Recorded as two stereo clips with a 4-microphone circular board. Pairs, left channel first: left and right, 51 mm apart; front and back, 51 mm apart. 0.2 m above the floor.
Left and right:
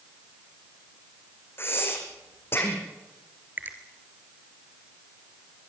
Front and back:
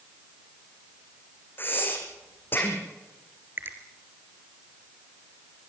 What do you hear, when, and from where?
1.6 s breathing: 50° left, 4 m
3.6 s a finger snap: 140° right, 3 m